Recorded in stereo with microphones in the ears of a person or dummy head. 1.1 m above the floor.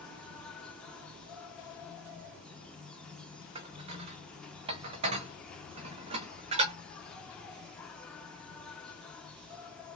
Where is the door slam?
I don't hear a door slam.